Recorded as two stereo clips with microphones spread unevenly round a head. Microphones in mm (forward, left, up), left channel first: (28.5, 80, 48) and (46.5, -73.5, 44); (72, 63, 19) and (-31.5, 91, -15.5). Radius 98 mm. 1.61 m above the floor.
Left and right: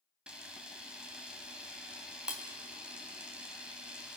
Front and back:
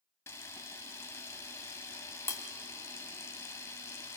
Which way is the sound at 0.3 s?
Straight ahead.